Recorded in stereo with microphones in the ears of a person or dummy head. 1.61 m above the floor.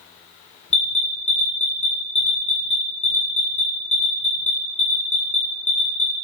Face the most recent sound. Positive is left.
turn(degrees=40)  # may be behind; listen again after turning